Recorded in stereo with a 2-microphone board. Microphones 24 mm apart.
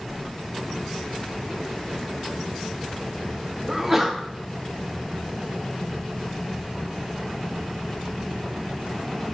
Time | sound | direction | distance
3.7 | a sneeze | 10° right (ahead or behind) | 0.6 m